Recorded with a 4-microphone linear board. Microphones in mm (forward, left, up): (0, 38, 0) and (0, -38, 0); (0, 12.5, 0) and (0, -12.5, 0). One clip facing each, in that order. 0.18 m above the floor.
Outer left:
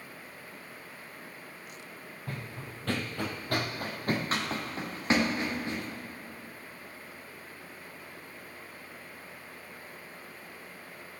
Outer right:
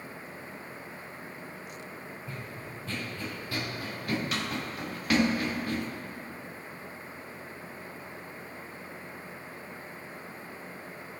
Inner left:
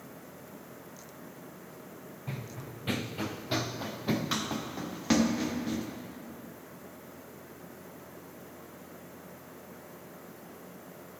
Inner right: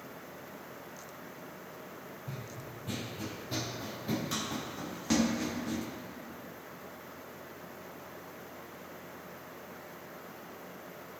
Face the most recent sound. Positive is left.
turn(degrees=25)  # may be behind; listen again after turning